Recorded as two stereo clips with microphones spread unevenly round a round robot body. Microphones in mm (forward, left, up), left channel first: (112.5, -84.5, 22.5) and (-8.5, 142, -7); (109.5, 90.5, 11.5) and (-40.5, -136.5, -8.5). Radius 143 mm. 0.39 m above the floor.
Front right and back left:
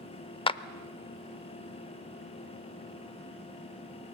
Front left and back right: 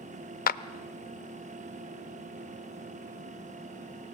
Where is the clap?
10° left, 0.8 m.